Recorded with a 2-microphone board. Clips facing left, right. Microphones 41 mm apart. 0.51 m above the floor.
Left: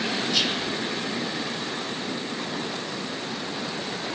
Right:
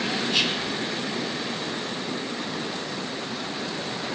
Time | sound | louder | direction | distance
0.3 | whispering | right 1 dB | 45° right (ahead or behind) | 1.7 m